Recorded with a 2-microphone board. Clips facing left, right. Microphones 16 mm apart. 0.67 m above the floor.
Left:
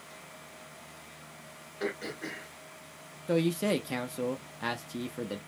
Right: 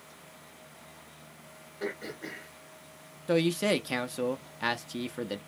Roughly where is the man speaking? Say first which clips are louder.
Right 2 dB; right.